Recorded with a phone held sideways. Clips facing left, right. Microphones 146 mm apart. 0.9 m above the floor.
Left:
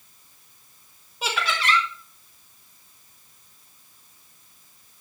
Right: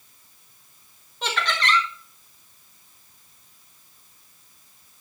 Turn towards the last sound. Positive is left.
turn(degrees=10)  # may be behind; listen again after turning